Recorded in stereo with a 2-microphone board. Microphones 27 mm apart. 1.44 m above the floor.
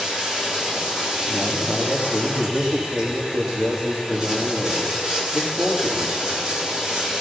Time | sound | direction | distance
0.0 | running water | 25° right (ahead or behind) | 3.5 m
1.3 | a man speaking | 85° right | 2.5 m